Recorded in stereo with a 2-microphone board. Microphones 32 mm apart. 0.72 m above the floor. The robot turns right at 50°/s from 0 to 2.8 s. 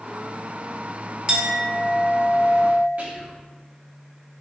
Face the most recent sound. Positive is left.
turn(degrees=-45)  # may be behind; listen again after turning